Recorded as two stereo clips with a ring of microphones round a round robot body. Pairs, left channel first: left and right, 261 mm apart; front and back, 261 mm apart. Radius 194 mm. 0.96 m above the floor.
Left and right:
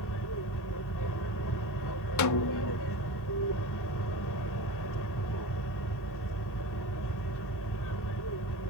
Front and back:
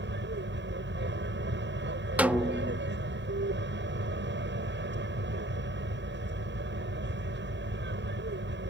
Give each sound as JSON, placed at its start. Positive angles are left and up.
{"t": 0.0, "sound": "an aircraft", "azimuth_deg": 135}
{"t": 2.2, "sound": "a snare drum", "azimuth_deg": 95}